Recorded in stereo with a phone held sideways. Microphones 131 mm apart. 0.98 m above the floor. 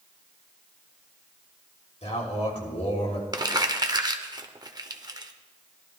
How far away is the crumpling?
About 0.7 m.